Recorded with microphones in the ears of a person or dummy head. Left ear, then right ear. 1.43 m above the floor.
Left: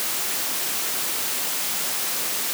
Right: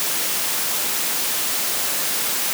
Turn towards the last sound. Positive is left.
No sound to turn to.